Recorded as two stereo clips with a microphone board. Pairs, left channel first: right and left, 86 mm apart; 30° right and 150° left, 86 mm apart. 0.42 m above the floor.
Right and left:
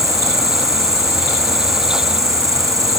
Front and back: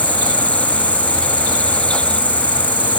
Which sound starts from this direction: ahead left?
An insect, at 0.0 s.